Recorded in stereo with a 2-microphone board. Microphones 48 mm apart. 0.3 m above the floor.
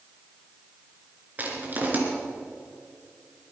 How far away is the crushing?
About 3.5 m.